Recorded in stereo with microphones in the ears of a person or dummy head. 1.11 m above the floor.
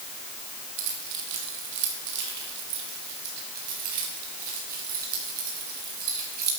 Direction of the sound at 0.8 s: 75° right (ahead or behind).